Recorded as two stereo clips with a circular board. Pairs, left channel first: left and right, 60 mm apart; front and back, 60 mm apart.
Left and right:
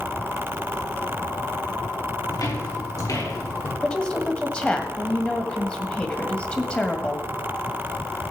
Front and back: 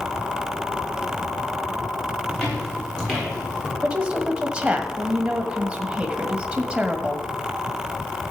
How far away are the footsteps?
About 7 m.